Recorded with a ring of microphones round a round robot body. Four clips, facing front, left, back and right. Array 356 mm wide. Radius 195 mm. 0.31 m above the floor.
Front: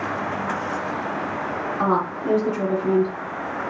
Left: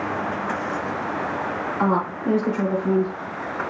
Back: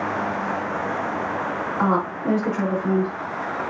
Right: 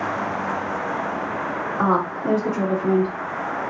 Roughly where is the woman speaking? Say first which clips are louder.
Right 2 dB, even; right.